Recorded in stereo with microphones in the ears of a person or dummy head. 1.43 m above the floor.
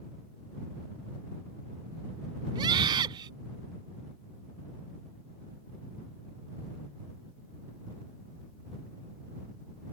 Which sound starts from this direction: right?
A scream, at 2.5 s.